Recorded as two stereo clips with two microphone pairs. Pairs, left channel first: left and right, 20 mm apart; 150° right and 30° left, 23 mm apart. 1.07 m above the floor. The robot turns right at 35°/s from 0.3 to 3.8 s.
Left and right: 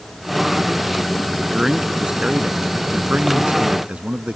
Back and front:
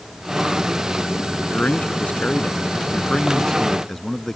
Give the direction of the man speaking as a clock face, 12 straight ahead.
5 o'clock.